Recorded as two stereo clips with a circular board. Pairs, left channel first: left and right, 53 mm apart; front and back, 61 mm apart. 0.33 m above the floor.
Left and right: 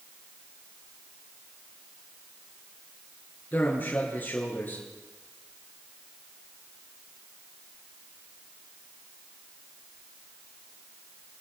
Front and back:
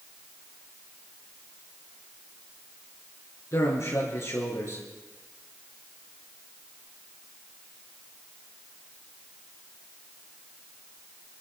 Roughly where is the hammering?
No hammering in this recording.